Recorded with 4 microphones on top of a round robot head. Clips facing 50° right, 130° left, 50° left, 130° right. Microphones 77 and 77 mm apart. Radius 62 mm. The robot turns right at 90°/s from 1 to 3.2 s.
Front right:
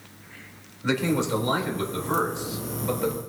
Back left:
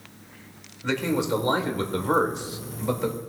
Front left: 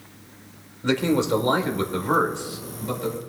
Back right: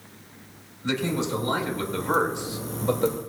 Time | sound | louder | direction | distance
0.8 | a man speaking | front right 1 dB, front left 5 dB | 35° left | 1.7 m